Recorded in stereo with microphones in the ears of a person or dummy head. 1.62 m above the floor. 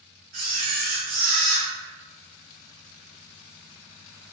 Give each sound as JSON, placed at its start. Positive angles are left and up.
{"t": 0.3, "sound": "a camera shutter", "side_deg": -45, "distance_m": 0.7}